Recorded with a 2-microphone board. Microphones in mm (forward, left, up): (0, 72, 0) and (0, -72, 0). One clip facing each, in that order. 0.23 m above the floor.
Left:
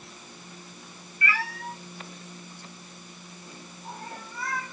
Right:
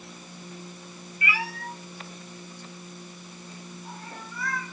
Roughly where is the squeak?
No squeak in this recording.